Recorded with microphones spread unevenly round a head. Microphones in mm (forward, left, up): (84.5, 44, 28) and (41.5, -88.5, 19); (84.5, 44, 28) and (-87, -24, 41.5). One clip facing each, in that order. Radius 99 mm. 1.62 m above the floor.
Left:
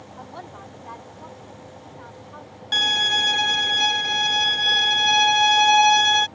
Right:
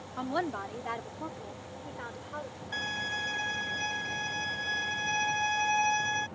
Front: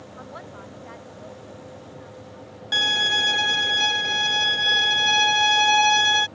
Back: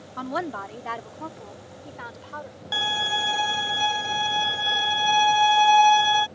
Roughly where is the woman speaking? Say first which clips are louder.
Right 8 dB, back 13 dB; behind right.